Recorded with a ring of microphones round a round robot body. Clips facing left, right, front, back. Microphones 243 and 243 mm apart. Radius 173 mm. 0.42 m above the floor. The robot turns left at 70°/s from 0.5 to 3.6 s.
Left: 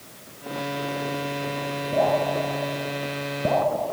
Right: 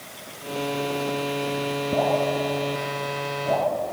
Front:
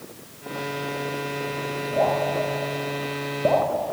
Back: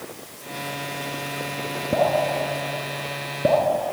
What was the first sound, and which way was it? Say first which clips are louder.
Dripping: left 1 dB, back 2 dB; 145° right.